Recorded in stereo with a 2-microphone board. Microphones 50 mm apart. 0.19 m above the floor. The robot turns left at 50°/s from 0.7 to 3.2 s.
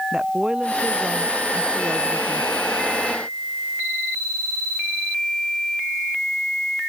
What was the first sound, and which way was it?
A woman speaking, 20° right.